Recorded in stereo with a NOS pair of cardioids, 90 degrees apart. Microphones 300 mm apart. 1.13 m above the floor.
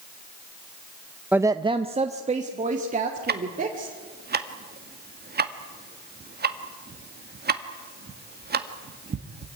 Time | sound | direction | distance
1.3 | a woman speaking | 5° right | 0.5 m
3.3 | ticking | 30° right | 1.8 m